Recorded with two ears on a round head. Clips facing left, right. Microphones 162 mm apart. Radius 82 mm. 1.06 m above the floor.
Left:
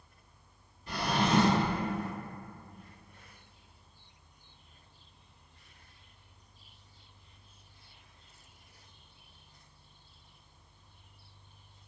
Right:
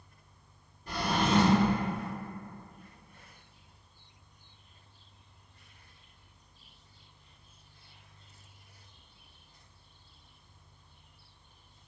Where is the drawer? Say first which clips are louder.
Even; 40° right (ahead or behind), 1.3 m.